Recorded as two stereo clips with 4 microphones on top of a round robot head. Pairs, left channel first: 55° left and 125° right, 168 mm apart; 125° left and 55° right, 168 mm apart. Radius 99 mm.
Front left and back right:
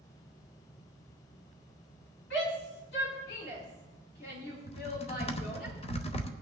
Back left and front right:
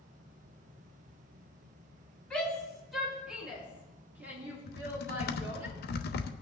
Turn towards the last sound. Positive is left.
turn(degrees=105)